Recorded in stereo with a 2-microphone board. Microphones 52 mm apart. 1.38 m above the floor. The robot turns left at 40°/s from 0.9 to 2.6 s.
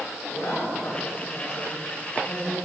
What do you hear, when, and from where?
0.3 s a woman speaking: 50° left (ahead or behind), 5 m; by 2.5 s 65° left (ahead or behind), 5 m